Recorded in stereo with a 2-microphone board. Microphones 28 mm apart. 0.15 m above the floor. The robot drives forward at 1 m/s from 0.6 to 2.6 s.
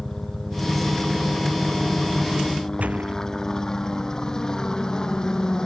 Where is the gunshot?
55° right (ahead or behind).